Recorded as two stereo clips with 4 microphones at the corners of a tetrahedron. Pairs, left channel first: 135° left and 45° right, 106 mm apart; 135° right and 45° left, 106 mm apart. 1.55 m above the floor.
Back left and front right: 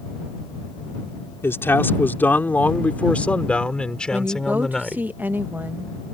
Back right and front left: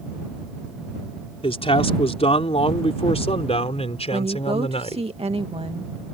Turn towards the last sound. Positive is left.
turn(degrees=25)